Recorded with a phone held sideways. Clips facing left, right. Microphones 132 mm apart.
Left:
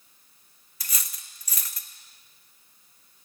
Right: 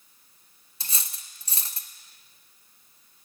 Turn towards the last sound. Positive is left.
turn(degrees=-25)  # may be behind; listen again after turning